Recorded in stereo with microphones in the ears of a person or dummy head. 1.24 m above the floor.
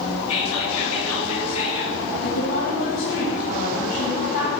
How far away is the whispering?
About 3 m.